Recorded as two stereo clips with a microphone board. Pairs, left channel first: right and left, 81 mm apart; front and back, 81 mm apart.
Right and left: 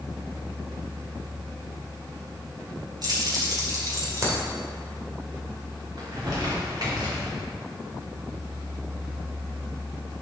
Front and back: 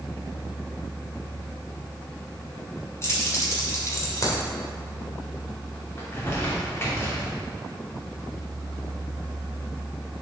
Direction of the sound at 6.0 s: 60° left.